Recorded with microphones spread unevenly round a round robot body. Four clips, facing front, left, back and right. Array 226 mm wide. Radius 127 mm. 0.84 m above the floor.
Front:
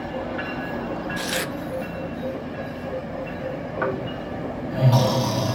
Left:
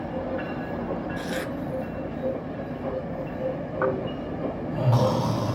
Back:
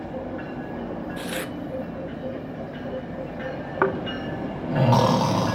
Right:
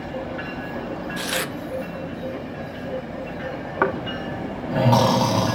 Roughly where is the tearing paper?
Ahead right.